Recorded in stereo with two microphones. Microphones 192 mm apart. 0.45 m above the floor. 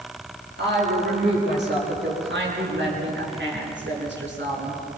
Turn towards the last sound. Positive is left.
turn(degrees=-75)  # may be behind; listen again after turning